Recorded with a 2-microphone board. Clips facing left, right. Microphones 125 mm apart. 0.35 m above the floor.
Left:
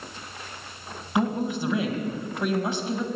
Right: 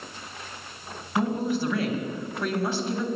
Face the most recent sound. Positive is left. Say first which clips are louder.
# even
turn(degrees=20)  # may be behind; listen again after turning